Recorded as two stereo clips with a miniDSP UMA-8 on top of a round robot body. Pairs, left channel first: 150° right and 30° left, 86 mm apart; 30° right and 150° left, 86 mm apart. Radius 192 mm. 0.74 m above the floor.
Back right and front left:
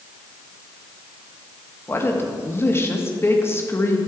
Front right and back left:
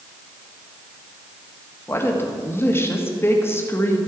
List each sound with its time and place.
1.9 s a woman speaking: 90° right, 1.7 m